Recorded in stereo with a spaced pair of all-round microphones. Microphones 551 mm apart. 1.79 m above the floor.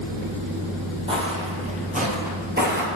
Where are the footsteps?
10° right (ahead or behind), 3 m; by 2.9 s 20° right (ahead or behind), 2 m.